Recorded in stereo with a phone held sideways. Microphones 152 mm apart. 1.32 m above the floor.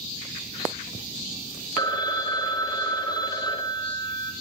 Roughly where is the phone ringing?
Left.